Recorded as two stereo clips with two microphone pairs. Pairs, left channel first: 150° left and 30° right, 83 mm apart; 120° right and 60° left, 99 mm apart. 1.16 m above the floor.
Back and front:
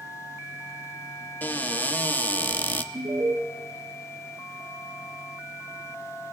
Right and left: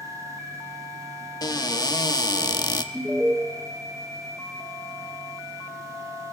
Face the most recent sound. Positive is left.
turn(degrees=-25)